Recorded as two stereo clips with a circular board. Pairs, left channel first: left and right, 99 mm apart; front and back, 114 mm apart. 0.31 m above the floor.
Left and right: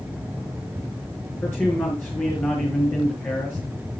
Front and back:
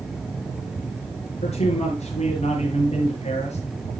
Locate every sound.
1.4 s a man speaking: 20° left, 5.5 m